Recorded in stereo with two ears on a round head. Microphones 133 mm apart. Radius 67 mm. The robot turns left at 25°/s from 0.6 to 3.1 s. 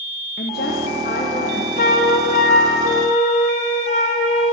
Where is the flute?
95° left, 1.1 m; by 4.5 s 60° left, 1.1 m.